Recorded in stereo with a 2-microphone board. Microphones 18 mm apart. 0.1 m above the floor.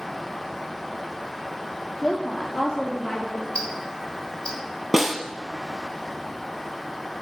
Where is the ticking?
60° left (ahead or behind), 3.5 m.